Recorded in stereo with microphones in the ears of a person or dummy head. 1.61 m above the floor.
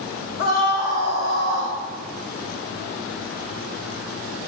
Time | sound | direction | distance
0.4 | a scream | 75° left (ahead or behind) | 2.5 m